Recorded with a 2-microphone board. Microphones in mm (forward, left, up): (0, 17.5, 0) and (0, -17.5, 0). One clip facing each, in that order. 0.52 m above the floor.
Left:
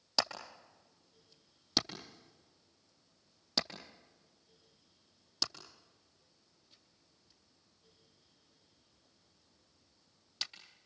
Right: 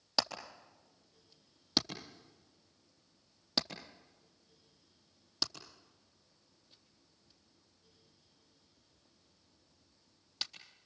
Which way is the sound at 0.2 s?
5° right (ahead or behind).